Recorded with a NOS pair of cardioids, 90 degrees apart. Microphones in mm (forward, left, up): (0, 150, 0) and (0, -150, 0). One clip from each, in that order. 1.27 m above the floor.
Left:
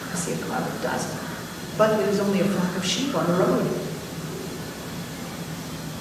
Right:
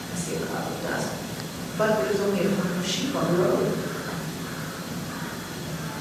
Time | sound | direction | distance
0.1 | a man speaking | 40° left | 4.5 m